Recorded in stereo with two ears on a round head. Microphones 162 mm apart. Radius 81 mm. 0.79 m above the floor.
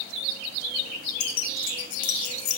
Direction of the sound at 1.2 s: 60° left (ahead or behind).